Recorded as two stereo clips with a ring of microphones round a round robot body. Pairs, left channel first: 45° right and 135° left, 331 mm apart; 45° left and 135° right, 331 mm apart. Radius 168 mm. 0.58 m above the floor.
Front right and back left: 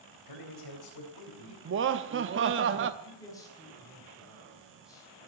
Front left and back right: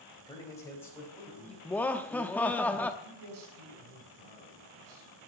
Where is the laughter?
125° left, 0.8 m.